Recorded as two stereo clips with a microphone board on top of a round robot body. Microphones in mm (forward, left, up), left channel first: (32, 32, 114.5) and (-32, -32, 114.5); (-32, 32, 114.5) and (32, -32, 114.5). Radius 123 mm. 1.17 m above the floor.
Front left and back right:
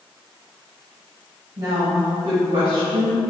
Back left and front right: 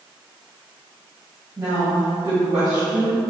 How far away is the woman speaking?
About 1.4 m.